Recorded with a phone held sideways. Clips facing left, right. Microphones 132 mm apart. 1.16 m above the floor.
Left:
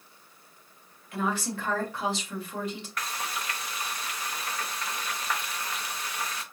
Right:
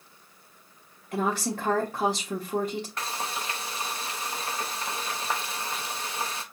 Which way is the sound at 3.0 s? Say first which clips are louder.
Right 2 dB; 30° right (ahead or behind).